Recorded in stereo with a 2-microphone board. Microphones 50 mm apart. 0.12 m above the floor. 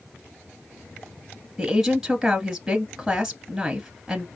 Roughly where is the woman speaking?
Centre.